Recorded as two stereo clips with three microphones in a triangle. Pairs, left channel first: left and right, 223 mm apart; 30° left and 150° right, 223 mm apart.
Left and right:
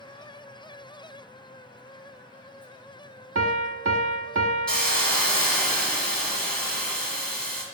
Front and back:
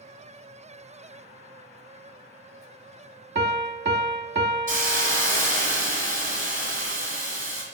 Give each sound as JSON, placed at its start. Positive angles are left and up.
{"t": 3.4, "sound": "a piano", "azimuth_deg": -110, "distance_m": 0.6}
{"t": 4.7, "sound": "a hiss", "azimuth_deg": 175, "distance_m": 1.7}